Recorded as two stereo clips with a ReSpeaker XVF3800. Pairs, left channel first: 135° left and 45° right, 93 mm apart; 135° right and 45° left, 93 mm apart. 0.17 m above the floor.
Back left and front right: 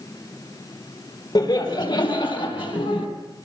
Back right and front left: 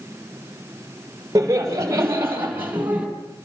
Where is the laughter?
100° left, 4 m; by 3.1 s 120° left, 5 m.